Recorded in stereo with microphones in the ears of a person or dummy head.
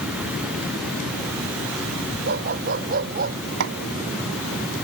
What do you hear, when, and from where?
2.3 s a dog barking: 55° right (ahead or behind); by 3.4 s 50° right (ahead or behind)
3.6 s hammering: 65° right (ahead or behind)